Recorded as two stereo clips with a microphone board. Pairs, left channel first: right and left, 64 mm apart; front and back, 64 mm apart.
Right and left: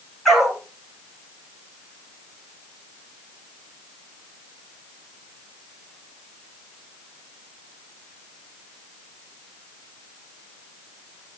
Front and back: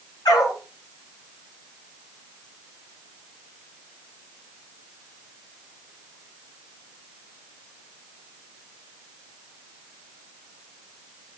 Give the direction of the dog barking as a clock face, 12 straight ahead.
12 o'clock.